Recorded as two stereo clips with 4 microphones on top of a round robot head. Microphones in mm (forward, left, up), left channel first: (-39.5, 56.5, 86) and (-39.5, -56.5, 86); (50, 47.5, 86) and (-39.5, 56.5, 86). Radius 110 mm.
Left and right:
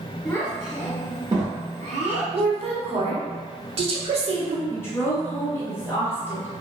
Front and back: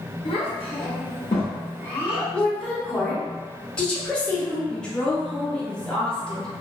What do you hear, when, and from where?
0.2 s a child speaking: 20° left, 0.7 m; by 2.2 s 70° right, 1.0 m
2.3 s a woman speaking: 80° right, 1.0 m
4.7 s a woman speaking: 60° left, 0.7 m